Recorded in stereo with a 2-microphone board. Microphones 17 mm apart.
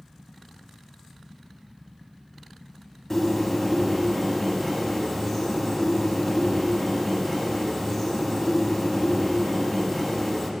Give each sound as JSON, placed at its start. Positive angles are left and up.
{"t": 3.1, "sound": "a bird", "side_deg": 25, "distance_m": 0.8}